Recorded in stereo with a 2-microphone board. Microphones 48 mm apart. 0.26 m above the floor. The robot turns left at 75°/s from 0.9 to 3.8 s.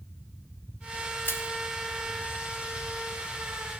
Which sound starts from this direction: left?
Crushing, at 1.2 s.